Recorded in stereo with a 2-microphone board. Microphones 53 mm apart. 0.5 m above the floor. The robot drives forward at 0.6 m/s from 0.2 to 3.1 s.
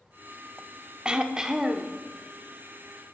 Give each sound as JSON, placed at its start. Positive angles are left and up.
{"t": 1.1, "sound": "throat clearing", "side_deg": -20, "distance_m": 0.6}